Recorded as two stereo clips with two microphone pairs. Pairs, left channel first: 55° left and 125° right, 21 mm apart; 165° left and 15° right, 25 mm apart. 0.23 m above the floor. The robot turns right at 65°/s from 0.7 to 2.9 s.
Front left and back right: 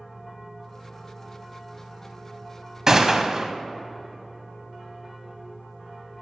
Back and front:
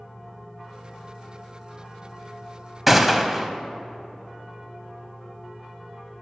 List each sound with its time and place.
2.9 s a gunshot: 85° right, 0.5 m; by 3.5 s 80° right, 0.5 m